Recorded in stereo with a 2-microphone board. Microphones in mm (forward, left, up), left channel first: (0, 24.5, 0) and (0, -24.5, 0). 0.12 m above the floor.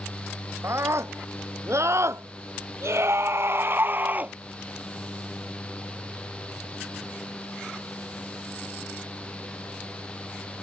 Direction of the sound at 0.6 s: 65° right (ahead or behind).